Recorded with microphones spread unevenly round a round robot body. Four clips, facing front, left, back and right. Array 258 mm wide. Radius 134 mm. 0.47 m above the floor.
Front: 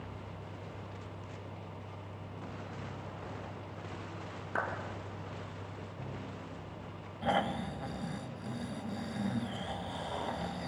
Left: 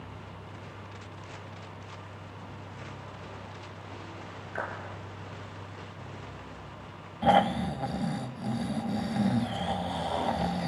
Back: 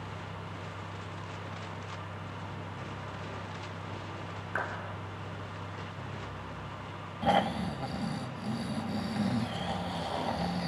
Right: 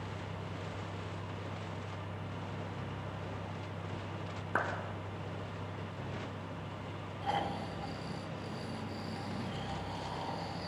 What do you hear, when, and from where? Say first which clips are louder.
4.5 s a clap: right 1 dB, even; 80° right, 4 m
7.2 s snoring: left 13 dB, back 4 dB; 105° left, 1.0 m